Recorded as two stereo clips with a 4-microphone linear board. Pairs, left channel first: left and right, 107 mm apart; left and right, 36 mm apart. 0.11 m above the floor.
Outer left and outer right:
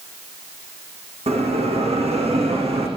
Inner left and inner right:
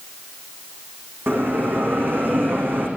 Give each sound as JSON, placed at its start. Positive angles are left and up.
{"t": 1.3, "sound": "a bell", "side_deg": -80, "distance_m": 6.5}